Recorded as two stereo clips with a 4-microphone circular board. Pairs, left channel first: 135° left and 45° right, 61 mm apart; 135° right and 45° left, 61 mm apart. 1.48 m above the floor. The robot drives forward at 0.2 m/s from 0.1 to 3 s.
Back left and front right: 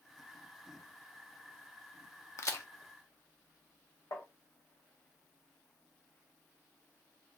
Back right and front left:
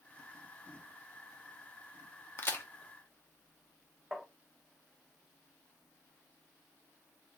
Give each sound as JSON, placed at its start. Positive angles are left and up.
{"t": 2.4, "sound": "a crack", "azimuth_deg": 170, "distance_m": 0.5}
{"t": 4.1, "sound": "tapping", "azimuth_deg": 130, "distance_m": 0.6}